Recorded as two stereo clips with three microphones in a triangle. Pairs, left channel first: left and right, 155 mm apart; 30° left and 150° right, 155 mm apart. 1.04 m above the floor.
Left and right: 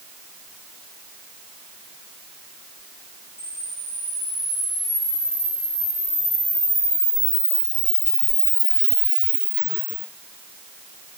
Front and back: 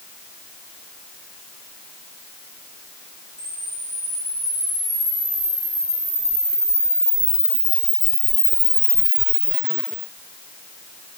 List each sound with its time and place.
3.4 s a camera shutter: 140° left, 6.5 m